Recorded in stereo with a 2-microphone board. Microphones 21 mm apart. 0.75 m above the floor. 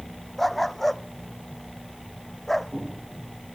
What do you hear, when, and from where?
0.4 s a dog barking: 10° left (ahead or behind)